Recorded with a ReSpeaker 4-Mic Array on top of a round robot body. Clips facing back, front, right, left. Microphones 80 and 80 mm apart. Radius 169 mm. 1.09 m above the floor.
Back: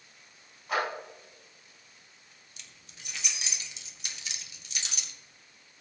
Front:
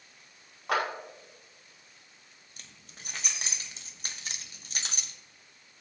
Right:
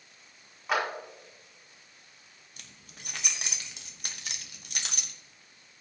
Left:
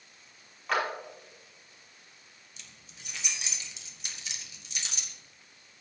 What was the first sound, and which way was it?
A clap, 5° right.